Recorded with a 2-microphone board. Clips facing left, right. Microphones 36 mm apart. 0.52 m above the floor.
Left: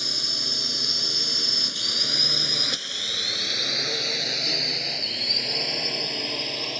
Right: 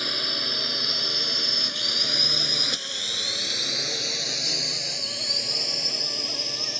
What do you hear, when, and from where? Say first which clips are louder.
0.0 s a drone: right 2 dB; 35° right (ahead or behind); by 6.8 s 35° left (ahead or behind)